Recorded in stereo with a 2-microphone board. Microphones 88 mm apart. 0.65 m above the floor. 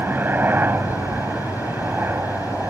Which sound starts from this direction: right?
A helicopter, at 0.0 s.